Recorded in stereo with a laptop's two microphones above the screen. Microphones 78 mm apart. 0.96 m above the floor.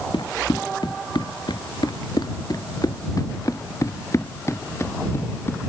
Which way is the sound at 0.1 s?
75° left (ahead or behind).